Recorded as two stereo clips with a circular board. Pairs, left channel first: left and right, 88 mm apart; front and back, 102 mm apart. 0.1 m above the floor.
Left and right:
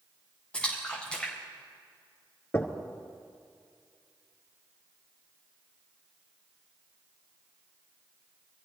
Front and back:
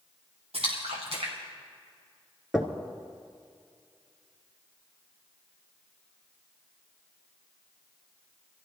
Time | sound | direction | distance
0.5 | a splash | 170° left | 4 m
2.5 | knocking | 95° left | 1.3 m